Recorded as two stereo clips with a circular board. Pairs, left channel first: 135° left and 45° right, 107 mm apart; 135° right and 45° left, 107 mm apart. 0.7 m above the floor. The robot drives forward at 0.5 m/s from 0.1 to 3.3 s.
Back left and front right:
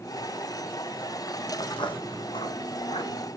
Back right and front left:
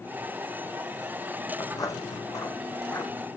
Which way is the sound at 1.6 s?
175° left.